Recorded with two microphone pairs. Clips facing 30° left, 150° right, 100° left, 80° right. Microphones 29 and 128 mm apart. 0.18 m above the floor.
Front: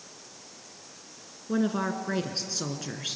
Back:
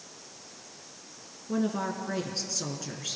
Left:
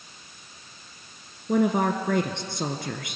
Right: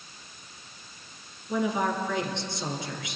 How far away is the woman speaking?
About 2 m.